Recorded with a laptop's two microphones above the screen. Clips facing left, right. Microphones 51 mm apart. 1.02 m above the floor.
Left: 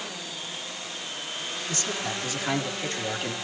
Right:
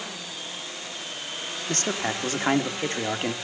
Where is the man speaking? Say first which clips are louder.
Right 5 dB; 55° right (ahead or behind), 2.5 m; by 3.3 s 35° right (ahead or behind), 2.5 m.